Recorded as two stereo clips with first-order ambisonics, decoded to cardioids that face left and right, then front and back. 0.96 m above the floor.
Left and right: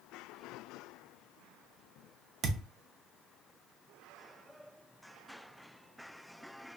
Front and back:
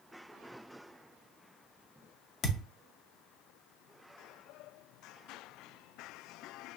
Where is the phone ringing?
I don't hear a phone ringing.